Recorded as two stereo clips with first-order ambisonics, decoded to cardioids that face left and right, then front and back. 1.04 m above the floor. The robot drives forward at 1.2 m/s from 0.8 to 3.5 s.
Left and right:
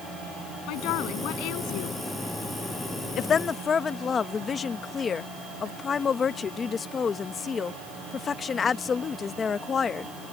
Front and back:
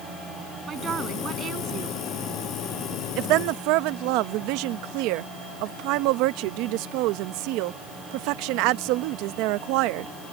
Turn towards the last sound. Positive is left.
turn(degrees=160)